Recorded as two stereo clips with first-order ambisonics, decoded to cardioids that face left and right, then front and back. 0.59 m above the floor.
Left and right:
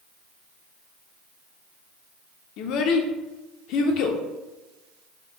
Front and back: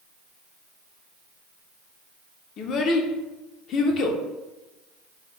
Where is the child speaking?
55° left, 0.6 m.